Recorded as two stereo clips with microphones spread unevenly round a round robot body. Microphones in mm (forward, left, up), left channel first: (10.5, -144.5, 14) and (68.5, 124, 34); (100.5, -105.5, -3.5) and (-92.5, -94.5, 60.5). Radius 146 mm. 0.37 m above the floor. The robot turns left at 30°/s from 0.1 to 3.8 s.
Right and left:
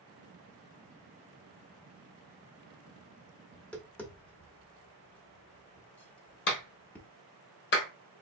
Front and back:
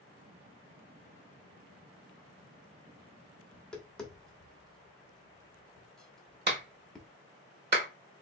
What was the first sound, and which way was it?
Tapping, 25° right.